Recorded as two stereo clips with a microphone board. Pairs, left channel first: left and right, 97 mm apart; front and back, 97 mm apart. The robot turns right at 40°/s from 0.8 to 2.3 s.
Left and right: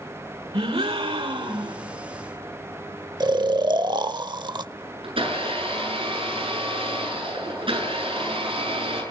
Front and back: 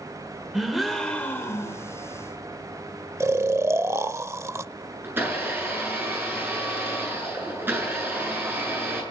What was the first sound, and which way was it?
A gasp, 90° right.